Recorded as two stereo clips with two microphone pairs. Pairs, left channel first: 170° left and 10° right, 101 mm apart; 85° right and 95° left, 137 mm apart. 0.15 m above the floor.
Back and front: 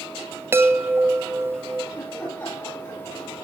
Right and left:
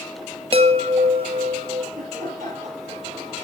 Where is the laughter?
105° left, 4 m.